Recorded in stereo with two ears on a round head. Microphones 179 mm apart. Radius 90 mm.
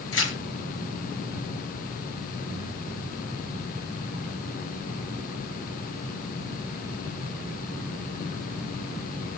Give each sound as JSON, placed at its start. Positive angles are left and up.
{"t": 0.1, "sound": "tearing paper", "side_deg": 75, "distance_m": 5.0}